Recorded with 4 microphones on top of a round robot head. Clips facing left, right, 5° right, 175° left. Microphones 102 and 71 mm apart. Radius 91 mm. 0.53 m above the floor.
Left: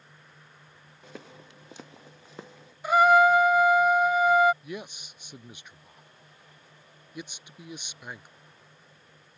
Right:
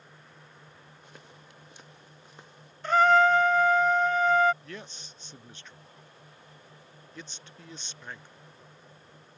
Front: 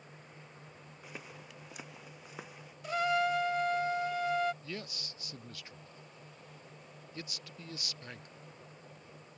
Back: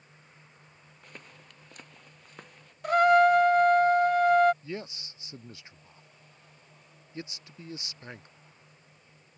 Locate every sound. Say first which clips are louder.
1.0 s footsteps: left 10 dB, front 2 dB; 80° left
2.8 s a trumpet: left 2 dB, back 11 dB; 170° left
4.6 s a man speaking: left 5 dB, back 5 dB; 150° left